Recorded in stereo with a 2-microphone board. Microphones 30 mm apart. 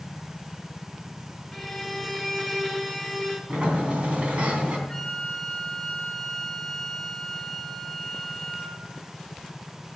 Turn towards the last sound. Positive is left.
turn(degrees=10)  # may be behind; listen again after turning